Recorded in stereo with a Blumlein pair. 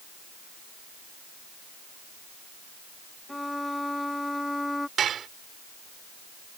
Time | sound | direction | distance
3.3 | a violin | 5° left | ?
5.0 | dishes clattering | 25° right | ?